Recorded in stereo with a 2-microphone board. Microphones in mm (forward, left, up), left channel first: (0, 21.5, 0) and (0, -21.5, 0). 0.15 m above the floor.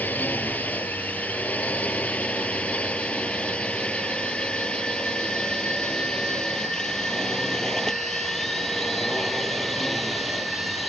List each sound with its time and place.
0.0 s a drone: 45° left (ahead or behind); by 10.9 s centre (ahead or behind)